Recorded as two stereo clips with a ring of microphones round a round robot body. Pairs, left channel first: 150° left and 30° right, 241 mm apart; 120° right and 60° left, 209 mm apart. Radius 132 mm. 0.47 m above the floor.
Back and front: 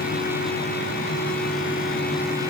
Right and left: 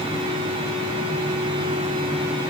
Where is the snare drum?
I don't hear a snare drum.